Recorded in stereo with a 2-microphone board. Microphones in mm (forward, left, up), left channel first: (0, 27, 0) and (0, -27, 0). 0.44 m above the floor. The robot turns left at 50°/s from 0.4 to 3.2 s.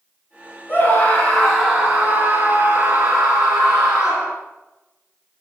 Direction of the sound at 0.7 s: 40° left.